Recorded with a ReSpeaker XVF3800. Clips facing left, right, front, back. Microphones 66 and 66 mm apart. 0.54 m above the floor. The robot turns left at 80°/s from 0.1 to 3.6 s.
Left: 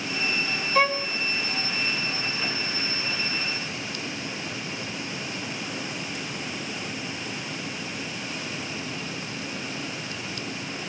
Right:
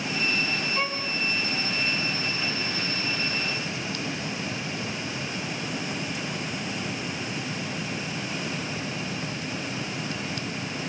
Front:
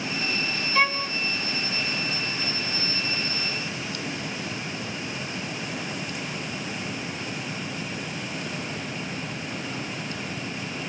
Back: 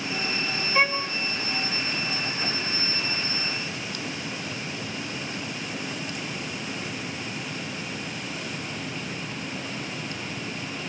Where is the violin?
105° left, 1.9 m; by 1.1 s 80° left, 1.9 m.